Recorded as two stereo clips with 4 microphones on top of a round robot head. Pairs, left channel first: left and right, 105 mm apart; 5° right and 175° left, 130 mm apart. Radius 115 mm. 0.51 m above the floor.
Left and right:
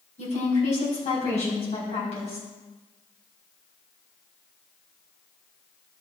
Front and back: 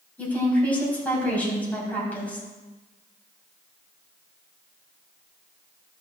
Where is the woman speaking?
75° left, 4.5 m.